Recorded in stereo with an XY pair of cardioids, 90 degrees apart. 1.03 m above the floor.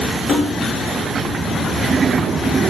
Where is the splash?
55° left, 1.4 m.